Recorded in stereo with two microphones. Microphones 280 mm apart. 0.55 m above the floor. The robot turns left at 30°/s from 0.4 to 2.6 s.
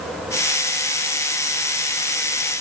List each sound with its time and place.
Only background noise.